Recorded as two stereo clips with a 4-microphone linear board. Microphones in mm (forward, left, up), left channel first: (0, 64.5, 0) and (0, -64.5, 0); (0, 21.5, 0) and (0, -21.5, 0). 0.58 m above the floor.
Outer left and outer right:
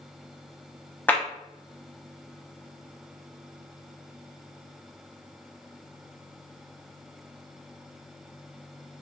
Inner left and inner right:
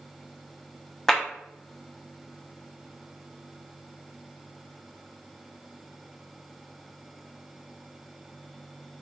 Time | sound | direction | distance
1.1 | a clap | 10° left (ahead or behind) | 0.7 m